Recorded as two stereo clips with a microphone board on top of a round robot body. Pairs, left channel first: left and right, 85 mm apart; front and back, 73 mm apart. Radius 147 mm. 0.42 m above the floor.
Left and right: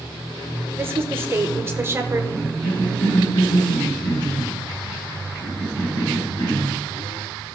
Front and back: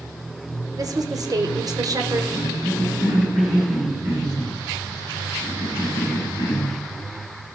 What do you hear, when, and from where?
0.8 s a woman speaking: 150° right, 1.9 m
2.3 s a cough: 130° left, 5.5 m